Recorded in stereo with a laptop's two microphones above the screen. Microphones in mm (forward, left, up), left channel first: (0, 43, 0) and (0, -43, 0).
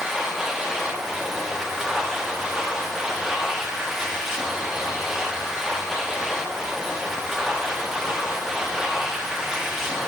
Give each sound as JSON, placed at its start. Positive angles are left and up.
{"t": 0.0, "sound": "a machine running", "side_deg": -5, "distance_m": 1.3}